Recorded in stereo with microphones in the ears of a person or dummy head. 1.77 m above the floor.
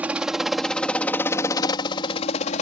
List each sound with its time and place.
0.0 s a helicopter: 10° right (ahead or behind); by 2.6 s 45° left (ahead or behind)